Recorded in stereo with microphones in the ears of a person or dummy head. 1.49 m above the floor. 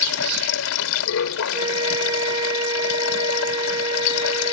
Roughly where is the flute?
Right.